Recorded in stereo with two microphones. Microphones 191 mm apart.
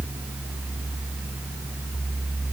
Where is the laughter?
No laughter in this recording.